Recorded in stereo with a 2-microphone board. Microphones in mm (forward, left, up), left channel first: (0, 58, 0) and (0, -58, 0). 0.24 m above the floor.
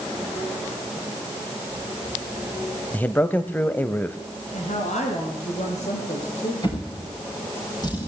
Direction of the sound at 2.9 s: 15° left (ahead or behind).